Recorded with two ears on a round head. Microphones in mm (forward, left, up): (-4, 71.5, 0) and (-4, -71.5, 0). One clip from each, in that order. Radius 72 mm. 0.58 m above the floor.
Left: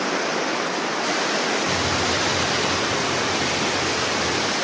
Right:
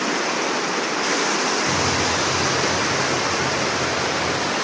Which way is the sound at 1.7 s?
50° left (ahead or behind).